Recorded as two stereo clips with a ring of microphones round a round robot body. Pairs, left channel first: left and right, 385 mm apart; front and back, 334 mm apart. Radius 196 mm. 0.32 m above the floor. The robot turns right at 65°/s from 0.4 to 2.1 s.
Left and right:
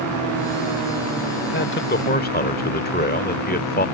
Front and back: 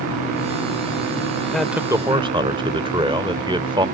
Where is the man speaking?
85° left; by 3.9 s 120° left.